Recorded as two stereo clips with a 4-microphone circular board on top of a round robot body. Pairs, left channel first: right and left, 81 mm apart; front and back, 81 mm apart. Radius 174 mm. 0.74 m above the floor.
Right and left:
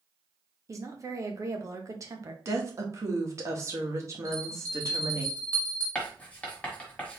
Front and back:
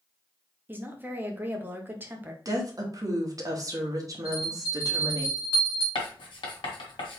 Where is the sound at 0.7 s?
125° left, 1.5 m.